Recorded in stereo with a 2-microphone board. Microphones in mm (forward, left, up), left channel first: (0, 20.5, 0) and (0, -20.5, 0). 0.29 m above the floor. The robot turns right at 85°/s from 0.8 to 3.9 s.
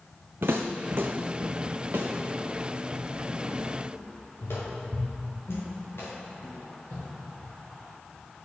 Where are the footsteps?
70° right (ahead or behind), 0.9 m; by 7.5 s 75° left (ahead or behind), 6 m.